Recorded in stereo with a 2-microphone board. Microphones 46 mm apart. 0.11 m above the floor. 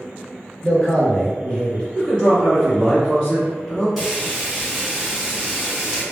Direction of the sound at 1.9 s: 20° left (ahead or behind).